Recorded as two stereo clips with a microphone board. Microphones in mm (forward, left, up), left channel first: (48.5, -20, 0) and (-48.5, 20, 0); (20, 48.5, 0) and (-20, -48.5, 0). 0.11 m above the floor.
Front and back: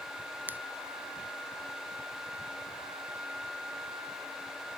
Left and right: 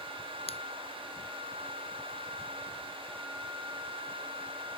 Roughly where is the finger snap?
Left.